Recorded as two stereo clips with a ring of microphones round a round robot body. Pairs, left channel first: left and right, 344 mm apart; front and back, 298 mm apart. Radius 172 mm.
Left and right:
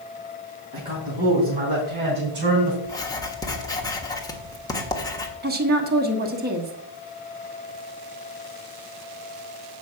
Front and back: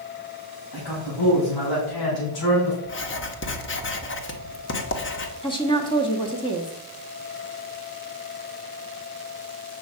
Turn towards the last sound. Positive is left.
turn(degrees=-60)